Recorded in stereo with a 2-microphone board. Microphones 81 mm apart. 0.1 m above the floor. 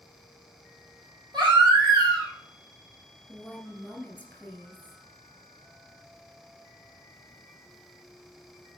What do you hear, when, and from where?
1.3 s a baby crying: 65° right (ahead or behind), 3 m
3.3 s a woman speaking: 15° left (ahead or behind), 2.0 m